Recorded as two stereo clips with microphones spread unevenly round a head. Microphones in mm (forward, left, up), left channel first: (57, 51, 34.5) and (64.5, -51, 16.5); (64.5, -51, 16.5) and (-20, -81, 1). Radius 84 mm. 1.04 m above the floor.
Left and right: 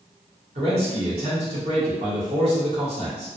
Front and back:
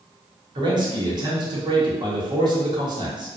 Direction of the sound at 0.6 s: 120° right.